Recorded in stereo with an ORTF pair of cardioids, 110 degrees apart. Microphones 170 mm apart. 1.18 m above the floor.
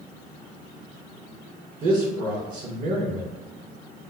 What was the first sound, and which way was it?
A man speaking, 60° right.